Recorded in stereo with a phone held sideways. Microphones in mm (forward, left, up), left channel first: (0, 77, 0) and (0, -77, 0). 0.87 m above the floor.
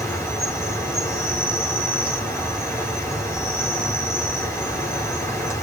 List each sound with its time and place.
0.0 s an insect: 15° left (ahead or behind), 7 m